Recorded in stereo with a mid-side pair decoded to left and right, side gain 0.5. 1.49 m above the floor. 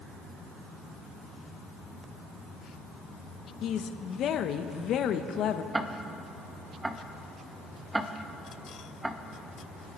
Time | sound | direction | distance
3.6 | a woman speaking | 60° left | 1.2 m
5.7 | ticking | 15° right | 1.1 m